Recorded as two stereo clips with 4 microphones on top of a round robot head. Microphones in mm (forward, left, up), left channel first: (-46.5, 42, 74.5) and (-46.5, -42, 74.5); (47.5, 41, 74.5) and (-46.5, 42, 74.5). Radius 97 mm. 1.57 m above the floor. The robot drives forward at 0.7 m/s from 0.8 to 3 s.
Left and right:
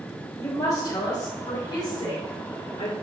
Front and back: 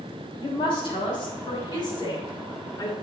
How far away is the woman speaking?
About 3.5 m.